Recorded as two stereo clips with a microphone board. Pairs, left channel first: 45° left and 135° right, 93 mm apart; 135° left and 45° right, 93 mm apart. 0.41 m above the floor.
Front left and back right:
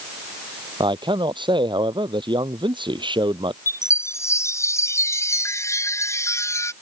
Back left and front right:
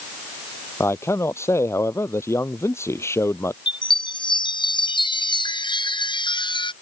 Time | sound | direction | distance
0.8 | a man speaking | 165° right | ?
3.7 | a chime | 105° left | ?